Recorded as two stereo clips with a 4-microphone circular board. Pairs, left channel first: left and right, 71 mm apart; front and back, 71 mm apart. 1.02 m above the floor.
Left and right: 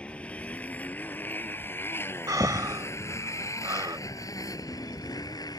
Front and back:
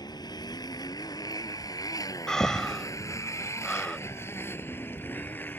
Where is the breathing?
80° right.